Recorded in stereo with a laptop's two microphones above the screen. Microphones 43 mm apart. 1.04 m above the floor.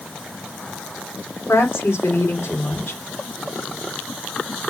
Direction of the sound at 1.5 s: 75° left (ahead or behind).